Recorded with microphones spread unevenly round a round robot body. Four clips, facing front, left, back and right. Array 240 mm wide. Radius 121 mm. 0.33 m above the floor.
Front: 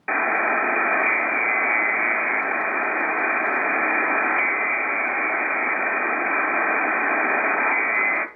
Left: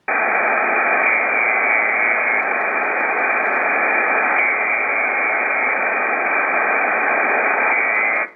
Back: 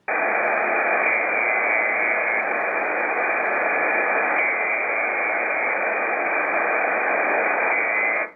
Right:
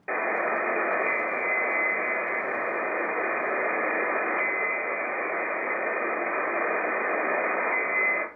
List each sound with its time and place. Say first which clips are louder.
0.1 s a buzzer: left 9 dB, back 1 dB; 95° left, 1.0 m